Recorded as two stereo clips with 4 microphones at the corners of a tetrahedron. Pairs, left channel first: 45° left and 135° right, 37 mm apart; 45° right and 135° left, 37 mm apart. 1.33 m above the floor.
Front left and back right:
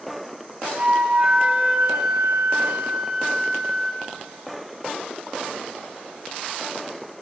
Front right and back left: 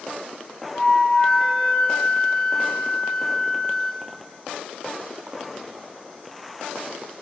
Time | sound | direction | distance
0.7 | a flute | 100° right | 1.8 m